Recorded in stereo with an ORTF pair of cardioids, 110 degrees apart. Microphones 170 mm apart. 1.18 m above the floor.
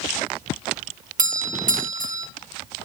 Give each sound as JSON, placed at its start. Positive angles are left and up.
{"t": 1.2, "sound": "a doorbell", "azimuth_deg": -55, "distance_m": 1.2}